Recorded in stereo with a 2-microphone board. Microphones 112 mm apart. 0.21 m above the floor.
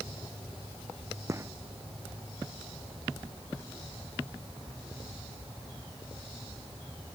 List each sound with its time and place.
1.3 s a gunshot: 25° right (ahead or behind)